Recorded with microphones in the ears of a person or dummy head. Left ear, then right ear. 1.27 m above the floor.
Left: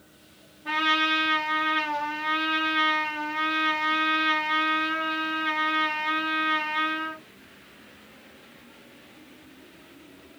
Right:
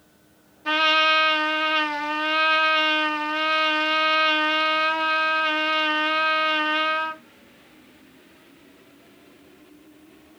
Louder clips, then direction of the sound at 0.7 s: Right 5 dB; 65° right (ahead or behind).